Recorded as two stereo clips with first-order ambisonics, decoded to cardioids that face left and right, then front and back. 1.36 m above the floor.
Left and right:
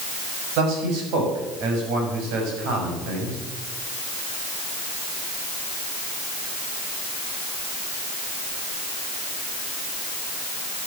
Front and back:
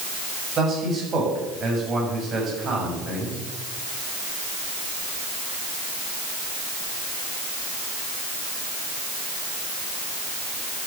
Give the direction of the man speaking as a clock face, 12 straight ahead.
4 o'clock.